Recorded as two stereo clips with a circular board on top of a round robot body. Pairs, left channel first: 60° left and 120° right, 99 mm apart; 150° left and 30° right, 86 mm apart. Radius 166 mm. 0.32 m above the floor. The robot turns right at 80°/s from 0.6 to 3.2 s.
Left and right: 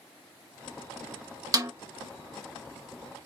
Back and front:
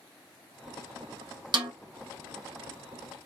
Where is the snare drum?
65° right, 0.6 m; by 1.7 s 55° right, 0.6 m.